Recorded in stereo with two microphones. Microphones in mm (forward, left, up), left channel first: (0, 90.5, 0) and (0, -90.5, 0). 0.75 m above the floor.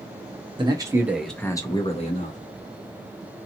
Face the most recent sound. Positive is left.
turn(degrees=45)  # may be behind; listen again after turning